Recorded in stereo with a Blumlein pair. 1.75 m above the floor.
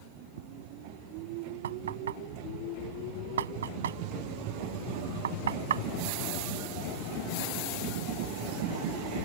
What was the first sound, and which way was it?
Footsteps, 55° right.